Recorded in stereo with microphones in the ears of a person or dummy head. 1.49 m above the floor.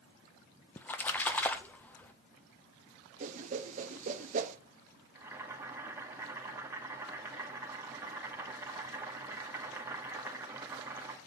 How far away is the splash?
About 0.6 m.